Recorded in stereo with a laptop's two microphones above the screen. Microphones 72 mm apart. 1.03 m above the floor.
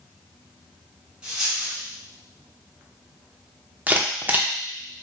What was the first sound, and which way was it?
A dropped coin, 10° right (ahead or behind).